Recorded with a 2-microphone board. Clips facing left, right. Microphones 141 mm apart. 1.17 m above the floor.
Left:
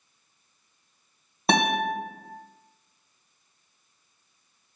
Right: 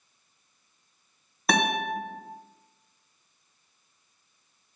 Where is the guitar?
30° left (ahead or behind), 1.9 m.